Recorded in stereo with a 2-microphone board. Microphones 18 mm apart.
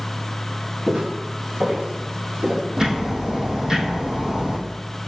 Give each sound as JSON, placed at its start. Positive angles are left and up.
{"t": 0.9, "sound": "footsteps", "side_deg": -35, "distance_m": 2.0}
{"t": 2.8, "sound": "ticking", "side_deg": -35, "distance_m": 1.7}